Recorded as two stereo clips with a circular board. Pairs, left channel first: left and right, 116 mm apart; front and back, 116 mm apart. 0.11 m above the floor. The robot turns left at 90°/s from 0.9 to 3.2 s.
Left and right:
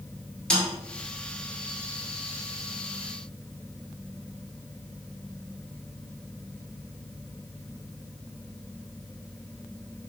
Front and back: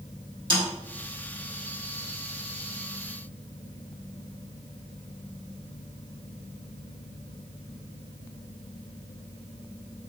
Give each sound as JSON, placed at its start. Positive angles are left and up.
{"t": 0.5, "sound": "a snare drum", "azimuth_deg": 170, "distance_m": 1.4}